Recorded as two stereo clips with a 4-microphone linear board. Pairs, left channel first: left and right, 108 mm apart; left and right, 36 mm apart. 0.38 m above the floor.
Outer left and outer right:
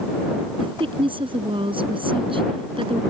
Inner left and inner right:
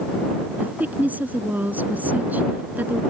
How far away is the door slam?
No door slam in this recording.